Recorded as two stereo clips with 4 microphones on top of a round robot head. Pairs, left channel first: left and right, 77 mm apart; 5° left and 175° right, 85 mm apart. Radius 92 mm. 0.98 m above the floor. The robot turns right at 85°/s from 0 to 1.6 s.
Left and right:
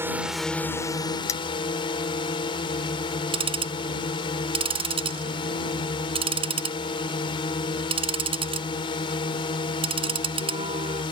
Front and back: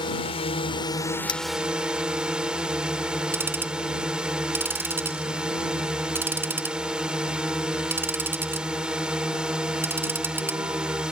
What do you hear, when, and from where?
0.0 s a drone: 30° right; by 11.1 s 105° left
1.3 s cutlery clinking: 40° left; by 1.4 s 50° left
3.3 s ticking: 105° right